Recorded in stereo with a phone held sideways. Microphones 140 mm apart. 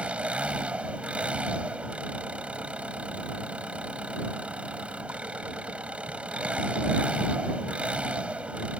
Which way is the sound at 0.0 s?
10° right (ahead or behind).